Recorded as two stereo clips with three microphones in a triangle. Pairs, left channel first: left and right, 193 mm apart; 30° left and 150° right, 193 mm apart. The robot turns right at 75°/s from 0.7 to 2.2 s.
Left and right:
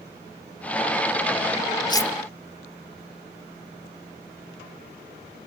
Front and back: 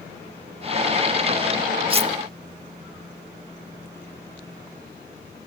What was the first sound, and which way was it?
Cutlery clinking, 155° left.